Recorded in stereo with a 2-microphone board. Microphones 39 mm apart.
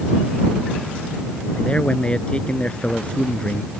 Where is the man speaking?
30° left (ahead or behind).